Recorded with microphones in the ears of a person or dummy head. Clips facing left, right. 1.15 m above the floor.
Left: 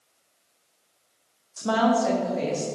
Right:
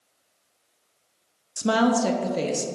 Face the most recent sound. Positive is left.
turn(degrees=-55)  # may be behind; listen again after turning